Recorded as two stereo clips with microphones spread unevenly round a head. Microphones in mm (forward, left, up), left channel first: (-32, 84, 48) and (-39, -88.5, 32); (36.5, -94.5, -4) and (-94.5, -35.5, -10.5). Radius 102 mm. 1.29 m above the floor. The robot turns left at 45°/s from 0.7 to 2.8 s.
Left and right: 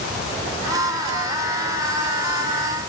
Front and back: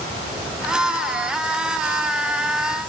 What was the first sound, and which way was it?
Only background noise.